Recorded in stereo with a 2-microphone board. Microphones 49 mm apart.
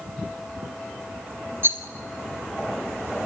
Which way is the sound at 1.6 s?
50° right (ahead or behind).